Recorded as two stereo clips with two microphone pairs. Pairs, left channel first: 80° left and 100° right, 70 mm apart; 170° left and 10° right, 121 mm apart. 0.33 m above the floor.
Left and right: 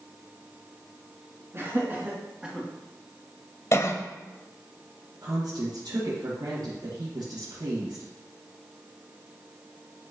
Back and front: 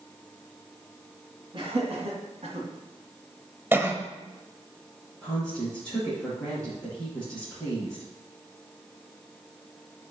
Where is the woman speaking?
110° right, 4 m.